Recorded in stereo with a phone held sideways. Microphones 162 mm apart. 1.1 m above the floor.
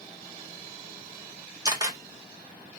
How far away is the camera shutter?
About 1.1 m.